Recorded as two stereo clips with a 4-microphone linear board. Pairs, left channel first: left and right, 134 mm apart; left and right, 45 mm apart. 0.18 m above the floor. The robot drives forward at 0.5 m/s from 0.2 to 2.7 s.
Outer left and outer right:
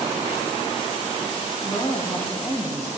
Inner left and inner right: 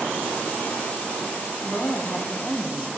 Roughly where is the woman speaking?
Left.